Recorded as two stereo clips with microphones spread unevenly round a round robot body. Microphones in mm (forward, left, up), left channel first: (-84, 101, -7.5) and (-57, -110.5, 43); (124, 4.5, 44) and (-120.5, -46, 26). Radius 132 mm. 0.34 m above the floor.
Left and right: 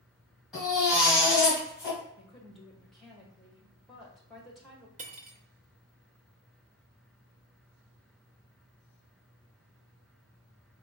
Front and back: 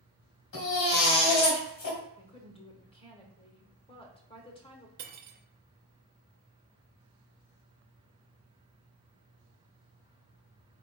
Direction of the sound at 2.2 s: 50° left.